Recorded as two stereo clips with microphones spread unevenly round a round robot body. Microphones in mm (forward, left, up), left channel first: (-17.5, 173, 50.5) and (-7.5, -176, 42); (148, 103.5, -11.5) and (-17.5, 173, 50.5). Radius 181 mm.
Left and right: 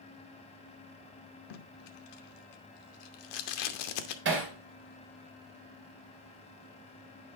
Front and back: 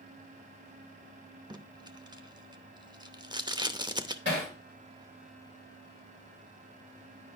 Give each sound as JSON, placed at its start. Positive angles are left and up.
{"t": 1.5, "sound": "tape being pulled", "azimuth_deg": 85, "distance_m": 0.9}
{"t": 4.2, "sound": "hammering", "azimuth_deg": -145, "distance_m": 2.0}